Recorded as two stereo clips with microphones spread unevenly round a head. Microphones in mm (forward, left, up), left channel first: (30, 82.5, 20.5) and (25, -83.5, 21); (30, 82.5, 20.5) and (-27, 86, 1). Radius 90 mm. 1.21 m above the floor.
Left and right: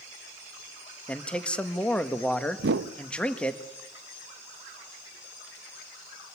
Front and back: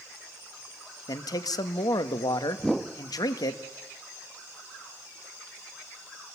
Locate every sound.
1.1 s a man speaking: 5° left, 1.7 m
2.6 s a whoosh: 80° right, 0.8 m